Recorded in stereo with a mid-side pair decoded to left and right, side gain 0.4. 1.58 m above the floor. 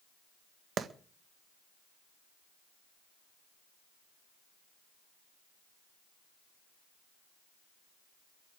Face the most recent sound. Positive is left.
turn(degrees=-55)